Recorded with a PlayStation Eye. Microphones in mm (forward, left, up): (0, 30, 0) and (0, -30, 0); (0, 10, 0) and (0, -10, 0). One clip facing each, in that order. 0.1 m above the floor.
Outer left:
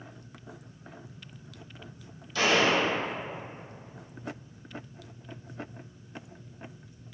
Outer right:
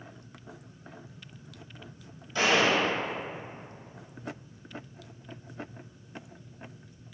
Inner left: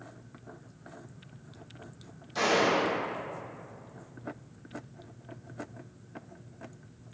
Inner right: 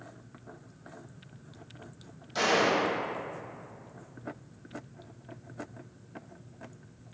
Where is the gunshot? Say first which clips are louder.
Even, even; 20° right (ahead or behind), 1.8 m.